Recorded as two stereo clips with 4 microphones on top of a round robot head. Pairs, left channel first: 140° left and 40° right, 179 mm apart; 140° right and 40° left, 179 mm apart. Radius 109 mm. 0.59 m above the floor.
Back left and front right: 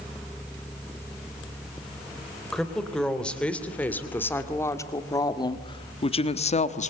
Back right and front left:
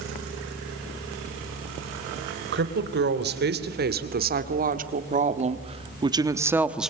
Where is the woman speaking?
55° left, 3.5 m; by 6.9 s 125° left, 1.4 m.